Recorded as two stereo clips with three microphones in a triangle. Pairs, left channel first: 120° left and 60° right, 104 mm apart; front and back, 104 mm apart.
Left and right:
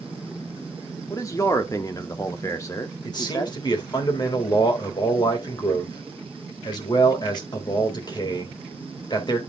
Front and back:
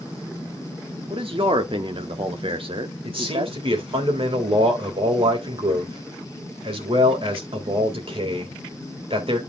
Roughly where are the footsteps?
No footsteps in this recording.